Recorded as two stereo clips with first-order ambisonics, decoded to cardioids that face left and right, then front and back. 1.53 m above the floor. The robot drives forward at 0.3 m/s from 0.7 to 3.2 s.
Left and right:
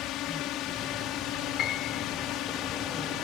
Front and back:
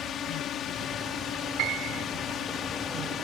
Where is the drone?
50° left; by 3.2 s 55° left.